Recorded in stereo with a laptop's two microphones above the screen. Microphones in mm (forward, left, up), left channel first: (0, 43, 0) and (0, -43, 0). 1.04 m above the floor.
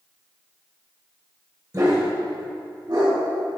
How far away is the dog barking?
About 1.5 m.